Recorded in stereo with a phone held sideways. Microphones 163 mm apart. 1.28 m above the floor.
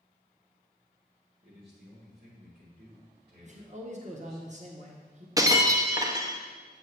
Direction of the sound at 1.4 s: 85° right.